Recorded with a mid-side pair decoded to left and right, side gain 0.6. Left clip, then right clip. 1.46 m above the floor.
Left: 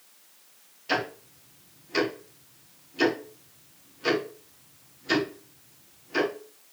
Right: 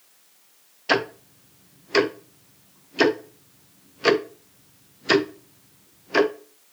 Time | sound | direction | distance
0.9 | ticking | 50° right | 1.1 m